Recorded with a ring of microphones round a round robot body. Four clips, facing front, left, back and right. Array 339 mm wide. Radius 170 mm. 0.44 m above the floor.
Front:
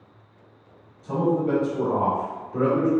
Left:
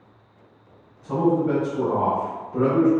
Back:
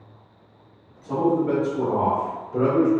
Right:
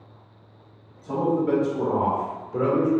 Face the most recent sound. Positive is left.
turn(degrees=-135)